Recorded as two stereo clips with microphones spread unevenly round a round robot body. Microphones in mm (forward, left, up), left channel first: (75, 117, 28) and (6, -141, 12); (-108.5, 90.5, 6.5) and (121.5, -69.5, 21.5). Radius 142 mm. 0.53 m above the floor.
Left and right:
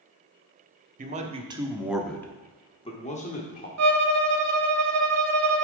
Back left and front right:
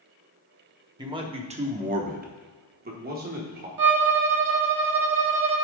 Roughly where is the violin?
Right.